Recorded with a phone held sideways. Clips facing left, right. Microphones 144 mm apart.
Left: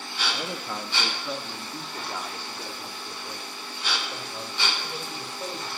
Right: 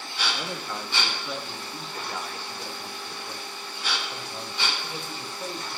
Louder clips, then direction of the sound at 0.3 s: Left 1 dB; 25° left (ahead or behind).